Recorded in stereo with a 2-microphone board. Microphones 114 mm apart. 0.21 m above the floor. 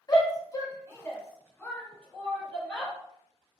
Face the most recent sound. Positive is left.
turn(degrees=10)  # may be behind; listen again after turning